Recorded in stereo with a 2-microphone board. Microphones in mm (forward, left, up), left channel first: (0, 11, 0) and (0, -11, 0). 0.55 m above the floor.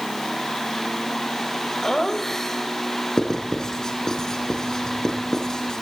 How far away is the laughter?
About 2.5 m.